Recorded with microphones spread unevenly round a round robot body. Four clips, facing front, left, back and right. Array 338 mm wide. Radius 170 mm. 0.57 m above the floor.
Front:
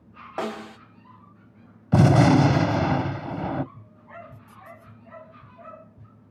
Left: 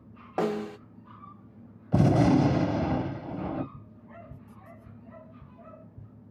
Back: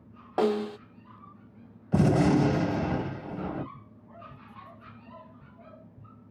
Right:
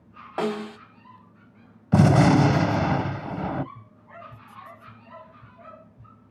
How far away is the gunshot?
About 1.7 m.